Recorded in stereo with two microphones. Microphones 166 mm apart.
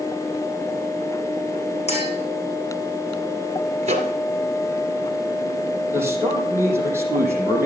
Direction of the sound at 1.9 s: 40° left (ahead or behind).